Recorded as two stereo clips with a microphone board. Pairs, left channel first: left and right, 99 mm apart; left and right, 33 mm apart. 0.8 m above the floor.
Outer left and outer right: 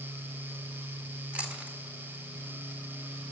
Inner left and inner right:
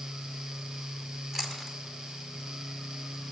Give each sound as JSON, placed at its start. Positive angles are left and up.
{"t": 1.3, "sound": "chewing", "side_deg": -15, "distance_m": 1.8}